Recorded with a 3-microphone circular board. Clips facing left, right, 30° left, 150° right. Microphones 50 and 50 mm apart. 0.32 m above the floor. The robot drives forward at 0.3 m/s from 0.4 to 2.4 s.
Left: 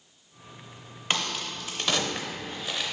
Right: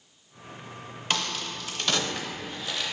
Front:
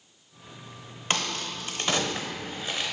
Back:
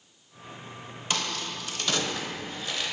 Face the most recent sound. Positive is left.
turn(degrees=60)